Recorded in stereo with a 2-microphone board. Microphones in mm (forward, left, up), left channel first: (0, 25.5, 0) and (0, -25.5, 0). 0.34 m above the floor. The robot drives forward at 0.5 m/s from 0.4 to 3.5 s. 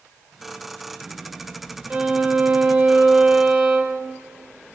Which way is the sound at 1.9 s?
25° right (ahead or behind).